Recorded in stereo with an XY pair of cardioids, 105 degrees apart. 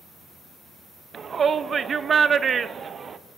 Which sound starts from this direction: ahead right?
A shout, at 1.1 s.